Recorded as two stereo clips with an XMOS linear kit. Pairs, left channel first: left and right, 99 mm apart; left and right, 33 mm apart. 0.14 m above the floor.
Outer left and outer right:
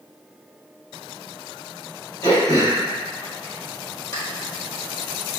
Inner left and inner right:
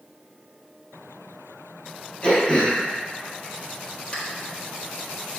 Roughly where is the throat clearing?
Left.